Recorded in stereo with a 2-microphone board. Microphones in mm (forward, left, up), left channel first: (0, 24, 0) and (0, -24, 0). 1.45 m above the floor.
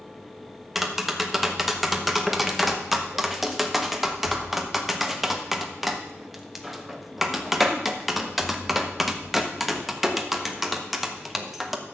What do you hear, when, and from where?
0.8 s tapping: 5° right (ahead or behind), 1.2 m